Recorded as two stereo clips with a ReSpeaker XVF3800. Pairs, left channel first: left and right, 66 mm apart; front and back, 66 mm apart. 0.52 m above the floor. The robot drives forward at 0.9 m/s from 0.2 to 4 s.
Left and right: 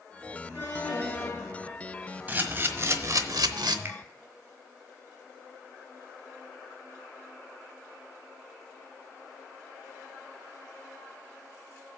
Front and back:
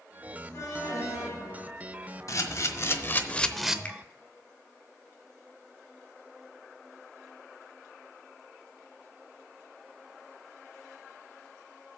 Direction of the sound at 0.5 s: 20° left.